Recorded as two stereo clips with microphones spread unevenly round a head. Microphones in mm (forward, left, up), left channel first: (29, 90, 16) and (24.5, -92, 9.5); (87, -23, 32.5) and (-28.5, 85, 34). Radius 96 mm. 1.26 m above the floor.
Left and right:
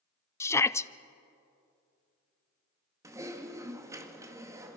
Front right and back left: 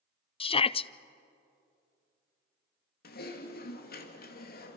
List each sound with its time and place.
0.4 s a shout: 10° left, 0.6 m
3.0 s typing on a keyboard: 20° right, 2 m